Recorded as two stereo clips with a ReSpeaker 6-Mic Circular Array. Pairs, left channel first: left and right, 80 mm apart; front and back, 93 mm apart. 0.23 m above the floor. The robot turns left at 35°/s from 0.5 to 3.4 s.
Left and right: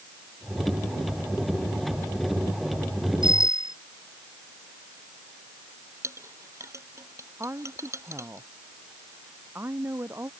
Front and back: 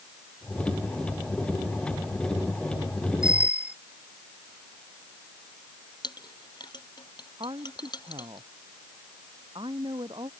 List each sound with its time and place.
3.2 s a bicycle bell: 100° right; by 3.8 s 105° right
6.0 s a clink: 40° right
7.4 s a woman speaking: 150° right